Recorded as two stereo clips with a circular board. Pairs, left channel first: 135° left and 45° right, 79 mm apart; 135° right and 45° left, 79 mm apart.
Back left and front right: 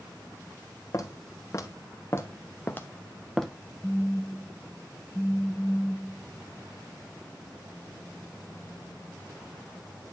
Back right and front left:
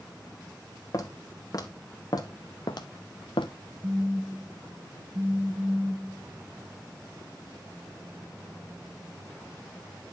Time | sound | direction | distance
0.9 | footsteps | straight behind | 2.5 m
3.8 | a phone buzzing | 60° left | 1.7 m